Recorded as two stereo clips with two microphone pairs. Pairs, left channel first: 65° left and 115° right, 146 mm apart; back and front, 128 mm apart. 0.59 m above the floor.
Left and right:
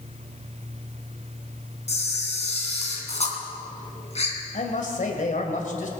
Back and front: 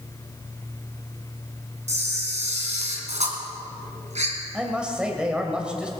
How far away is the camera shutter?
About 2.5 m.